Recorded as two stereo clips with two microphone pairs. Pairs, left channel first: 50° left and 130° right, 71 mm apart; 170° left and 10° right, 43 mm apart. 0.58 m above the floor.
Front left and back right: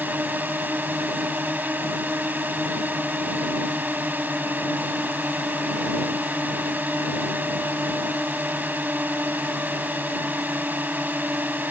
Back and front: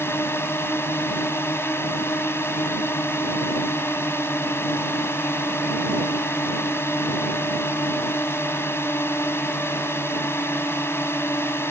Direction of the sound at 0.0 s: 170° left.